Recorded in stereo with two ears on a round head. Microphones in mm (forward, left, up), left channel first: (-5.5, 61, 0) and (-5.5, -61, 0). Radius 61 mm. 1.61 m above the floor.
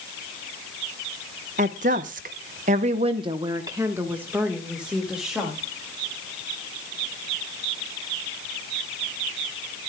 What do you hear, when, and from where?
1.6 s a woman speaking: 55° right (ahead or behind), 1.2 m; by 5.6 s 5° right (ahead or behind), 2.5 m